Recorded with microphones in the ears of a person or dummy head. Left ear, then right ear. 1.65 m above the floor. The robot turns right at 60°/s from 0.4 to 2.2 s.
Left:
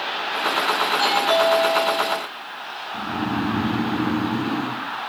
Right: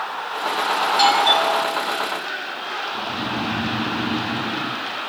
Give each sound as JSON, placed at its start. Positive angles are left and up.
{"t": 0.9, "sound": "a doorbell", "azimuth_deg": -70, "distance_m": 8.0}
{"t": 2.9, "sound": "snoring", "side_deg": 60, "distance_m": 1.9}